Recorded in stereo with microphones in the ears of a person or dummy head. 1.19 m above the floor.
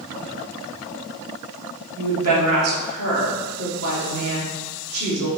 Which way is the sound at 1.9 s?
90° right.